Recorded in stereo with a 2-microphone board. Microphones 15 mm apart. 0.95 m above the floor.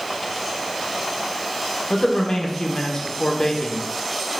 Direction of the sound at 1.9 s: 65° left (ahead or behind).